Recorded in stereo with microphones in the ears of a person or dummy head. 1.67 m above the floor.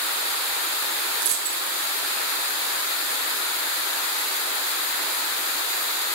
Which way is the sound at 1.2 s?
50° right (ahead or behind).